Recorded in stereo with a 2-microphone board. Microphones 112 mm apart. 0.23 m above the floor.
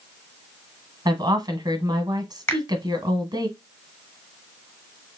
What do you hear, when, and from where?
1.1 s a woman speaking: 40° right (ahead or behind), 1.3 m
2.5 s a finger snap: 20° left (ahead or behind), 1.5 m